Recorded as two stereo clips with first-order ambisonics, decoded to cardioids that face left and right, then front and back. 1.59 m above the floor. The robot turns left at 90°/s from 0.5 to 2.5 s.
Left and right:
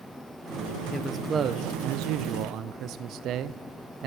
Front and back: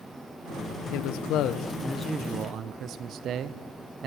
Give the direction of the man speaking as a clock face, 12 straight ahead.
12 o'clock.